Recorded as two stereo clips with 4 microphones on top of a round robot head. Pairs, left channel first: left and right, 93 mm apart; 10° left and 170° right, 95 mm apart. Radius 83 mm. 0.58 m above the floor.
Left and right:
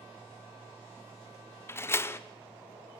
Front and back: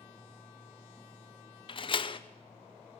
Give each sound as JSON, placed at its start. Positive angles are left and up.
{"t": 1.7, "sound": "a door slam", "azimuth_deg": 30, "distance_m": 1.1}